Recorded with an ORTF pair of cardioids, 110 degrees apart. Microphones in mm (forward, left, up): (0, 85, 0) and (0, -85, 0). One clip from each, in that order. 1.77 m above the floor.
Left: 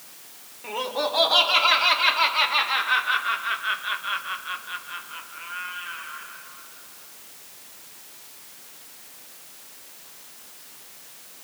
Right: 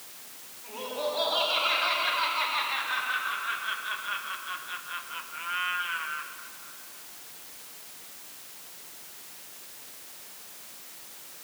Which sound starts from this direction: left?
Laughter, at 0.6 s.